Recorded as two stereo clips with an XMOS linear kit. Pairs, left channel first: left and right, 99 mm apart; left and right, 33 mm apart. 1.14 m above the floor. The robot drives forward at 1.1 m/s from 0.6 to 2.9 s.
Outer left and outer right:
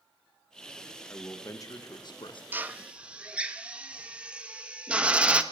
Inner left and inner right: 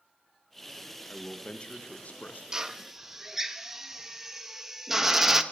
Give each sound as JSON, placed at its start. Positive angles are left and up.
{"t": 1.1, "sound": "a man speaking", "side_deg": 25, "distance_m": 1.7}
{"t": 2.5, "sound": "a drill", "side_deg": -20, "distance_m": 0.6}